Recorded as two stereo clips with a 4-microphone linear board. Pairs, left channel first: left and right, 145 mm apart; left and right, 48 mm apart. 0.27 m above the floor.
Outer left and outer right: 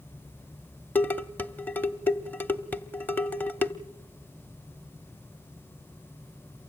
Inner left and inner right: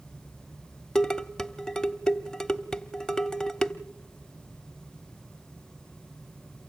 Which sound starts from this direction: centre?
Dishes clattering, at 0.9 s.